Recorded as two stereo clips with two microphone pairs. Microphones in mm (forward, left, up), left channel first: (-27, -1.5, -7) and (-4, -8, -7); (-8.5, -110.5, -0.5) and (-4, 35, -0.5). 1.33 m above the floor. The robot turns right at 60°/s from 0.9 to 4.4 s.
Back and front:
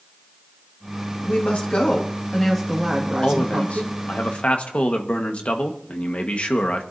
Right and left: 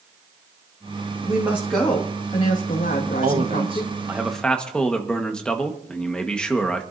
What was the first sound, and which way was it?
A woman speaking, 150° left.